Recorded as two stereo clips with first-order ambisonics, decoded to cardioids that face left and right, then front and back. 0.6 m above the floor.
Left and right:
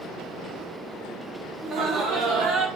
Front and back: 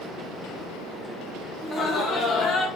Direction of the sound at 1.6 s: 60° right.